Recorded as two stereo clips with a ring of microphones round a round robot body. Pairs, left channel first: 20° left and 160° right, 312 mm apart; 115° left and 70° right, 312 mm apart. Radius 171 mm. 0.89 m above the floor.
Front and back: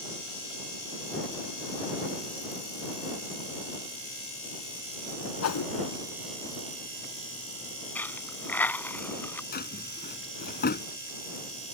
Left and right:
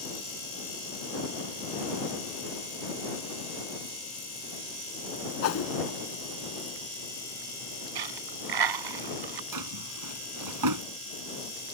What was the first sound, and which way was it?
A whoosh, 65° left.